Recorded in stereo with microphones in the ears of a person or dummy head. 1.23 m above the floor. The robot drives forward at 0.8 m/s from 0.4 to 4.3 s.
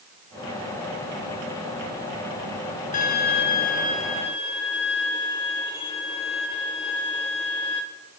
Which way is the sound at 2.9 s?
40° left (ahead or behind).